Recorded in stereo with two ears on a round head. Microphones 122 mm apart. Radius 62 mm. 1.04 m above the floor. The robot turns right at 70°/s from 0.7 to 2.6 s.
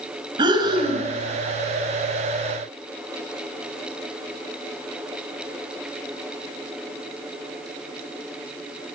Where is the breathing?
35° right (ahead or behind), 5 m; by 1.1 s 60° right (ahead or behind), 5 m.